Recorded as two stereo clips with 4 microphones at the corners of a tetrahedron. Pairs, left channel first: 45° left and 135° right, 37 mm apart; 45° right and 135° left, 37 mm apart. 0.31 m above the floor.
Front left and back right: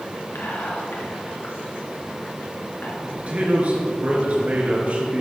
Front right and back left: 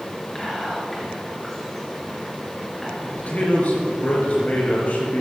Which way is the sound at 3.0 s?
90° right.